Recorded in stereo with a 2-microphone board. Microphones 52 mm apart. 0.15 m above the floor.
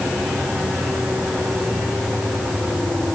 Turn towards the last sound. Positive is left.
No sound to turn to.